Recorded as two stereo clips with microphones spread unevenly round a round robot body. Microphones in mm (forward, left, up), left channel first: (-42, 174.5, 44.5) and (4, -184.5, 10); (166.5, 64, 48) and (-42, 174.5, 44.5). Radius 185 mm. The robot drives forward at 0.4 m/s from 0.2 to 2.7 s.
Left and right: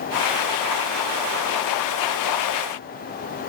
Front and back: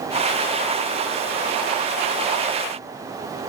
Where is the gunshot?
No gunshot in this recording.